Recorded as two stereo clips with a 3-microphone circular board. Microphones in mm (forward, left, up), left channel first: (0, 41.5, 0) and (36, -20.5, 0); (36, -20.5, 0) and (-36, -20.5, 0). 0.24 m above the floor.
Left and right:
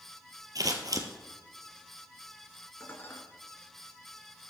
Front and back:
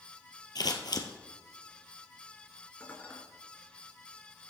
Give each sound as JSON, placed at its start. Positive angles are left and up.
{"t": 0.6, "sound": "scissors", "azimuth_deg": -25, "distance_m": 1.6}
{"t": 2.8, "sound": "dishes clattering", "azimuth_deg": 65, "distance_m": 2.0}